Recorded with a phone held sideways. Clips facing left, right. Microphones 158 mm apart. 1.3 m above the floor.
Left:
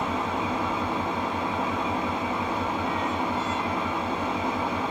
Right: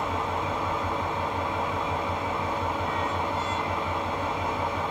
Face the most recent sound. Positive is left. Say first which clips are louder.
# left 1 dB
turn(degrees=75)  # may be behind; listen again after turning